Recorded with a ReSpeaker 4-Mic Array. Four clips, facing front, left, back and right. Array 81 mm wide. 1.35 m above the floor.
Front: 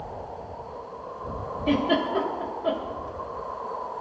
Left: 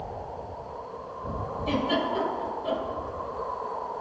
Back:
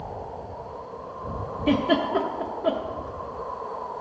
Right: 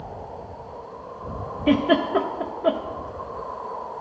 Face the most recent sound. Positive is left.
turn(degrees=-100)